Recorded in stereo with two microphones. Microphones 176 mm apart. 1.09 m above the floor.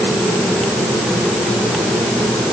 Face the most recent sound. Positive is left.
No sound to turn to.